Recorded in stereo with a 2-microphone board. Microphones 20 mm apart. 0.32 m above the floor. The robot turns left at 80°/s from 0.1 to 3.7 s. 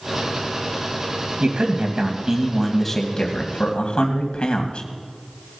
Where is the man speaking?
80° right, 2 m; by 4.9 s 95° left, 2 m.